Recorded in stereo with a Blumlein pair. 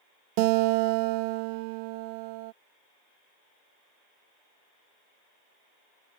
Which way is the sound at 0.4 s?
45° right.